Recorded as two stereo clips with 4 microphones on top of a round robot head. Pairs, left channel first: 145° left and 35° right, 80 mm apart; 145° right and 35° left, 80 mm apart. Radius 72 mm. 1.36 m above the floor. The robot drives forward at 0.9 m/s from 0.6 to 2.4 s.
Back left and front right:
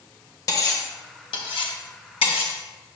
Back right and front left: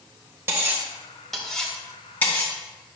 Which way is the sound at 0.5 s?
95° left.